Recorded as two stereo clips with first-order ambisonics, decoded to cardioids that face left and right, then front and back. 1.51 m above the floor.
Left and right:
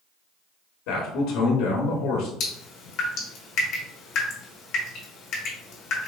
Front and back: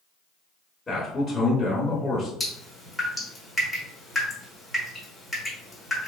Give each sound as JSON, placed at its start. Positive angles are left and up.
{"t": 0.9, "sound": "a man speaking", "azimuth_deg": 80, "distance_m": 1.1}
{"t": 2.4, "sound": "dripping", "azimuth_deg": 95, "distance_m": 1.5}